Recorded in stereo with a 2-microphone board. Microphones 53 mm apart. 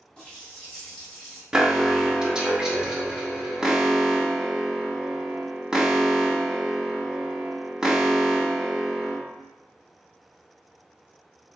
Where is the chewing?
I don't hear chewing.